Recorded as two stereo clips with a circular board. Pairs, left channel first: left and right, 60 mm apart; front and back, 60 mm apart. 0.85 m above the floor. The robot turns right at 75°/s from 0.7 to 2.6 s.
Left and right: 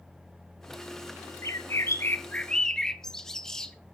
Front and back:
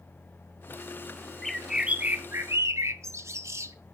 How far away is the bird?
About 0.8 m.